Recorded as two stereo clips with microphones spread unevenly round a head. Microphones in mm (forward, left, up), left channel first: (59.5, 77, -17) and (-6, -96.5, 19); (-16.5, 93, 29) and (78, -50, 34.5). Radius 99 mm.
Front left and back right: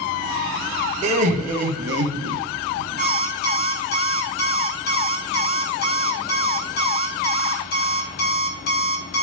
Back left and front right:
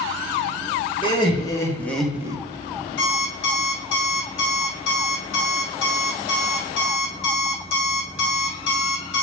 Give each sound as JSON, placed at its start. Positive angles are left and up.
{"t": 1.0, "sound": "laughter", "azimuth_deg": -170, "distance_m": 2.0}
{"t": 3.0, "sound": "an alarm clock", "azimuth_deg": 115, "distance_m": 1.7}